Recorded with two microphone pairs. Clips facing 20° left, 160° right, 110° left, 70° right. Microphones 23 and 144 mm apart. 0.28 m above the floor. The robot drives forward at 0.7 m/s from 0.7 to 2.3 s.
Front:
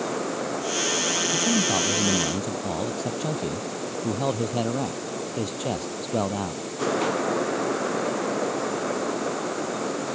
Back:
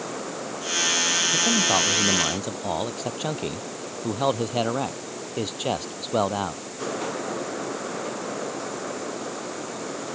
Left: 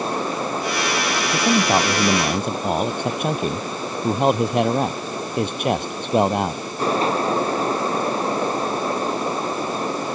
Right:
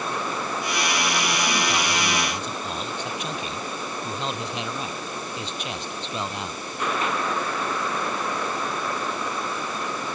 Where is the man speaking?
135° left; by 6.6 s 140° left.